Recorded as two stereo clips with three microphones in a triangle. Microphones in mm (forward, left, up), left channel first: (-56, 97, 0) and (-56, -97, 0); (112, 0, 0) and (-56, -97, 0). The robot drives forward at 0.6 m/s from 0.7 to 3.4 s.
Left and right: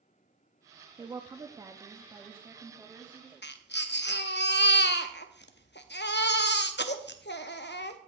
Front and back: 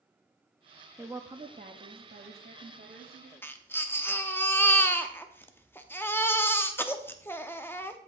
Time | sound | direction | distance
1.0 | a woman speaking | 85° right | 0.5 m
3.4 | a baby crying | 105° left | 0.6 m